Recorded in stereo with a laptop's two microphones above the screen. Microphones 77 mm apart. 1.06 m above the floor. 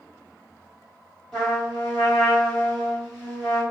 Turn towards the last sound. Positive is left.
turn(degrees=0)  # may be behind; listen again after turning